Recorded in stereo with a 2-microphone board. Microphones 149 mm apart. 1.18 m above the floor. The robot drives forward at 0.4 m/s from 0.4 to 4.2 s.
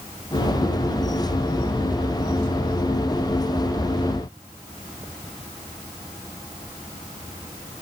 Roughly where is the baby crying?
I don't hear a baby crying.